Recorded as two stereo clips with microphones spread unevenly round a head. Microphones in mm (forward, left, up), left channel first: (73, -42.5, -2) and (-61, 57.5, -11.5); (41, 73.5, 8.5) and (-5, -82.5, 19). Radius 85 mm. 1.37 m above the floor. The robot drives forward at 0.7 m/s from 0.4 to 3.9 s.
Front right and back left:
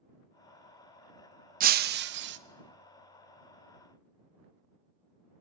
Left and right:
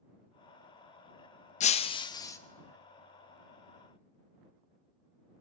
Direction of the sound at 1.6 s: 120° left.